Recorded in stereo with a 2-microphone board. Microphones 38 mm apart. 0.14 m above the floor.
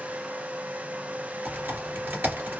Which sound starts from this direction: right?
Typing on a keyboard, at 1.4 s.